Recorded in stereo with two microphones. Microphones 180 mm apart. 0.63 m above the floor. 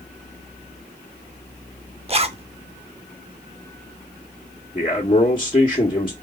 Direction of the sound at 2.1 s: 35° right (ahead or behind).